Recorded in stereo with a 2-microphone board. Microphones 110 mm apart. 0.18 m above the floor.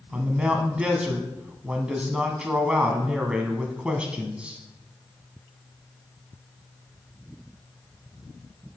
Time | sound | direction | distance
0.1 | a man speaking | 10° right (ahead or behind) | 1.1 m